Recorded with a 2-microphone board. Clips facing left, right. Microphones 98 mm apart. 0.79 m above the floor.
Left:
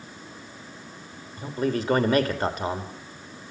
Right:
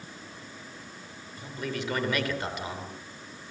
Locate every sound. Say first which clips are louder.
1.4 s a man speaking: left 8 dB; 40° left (ahead or behind), 3 m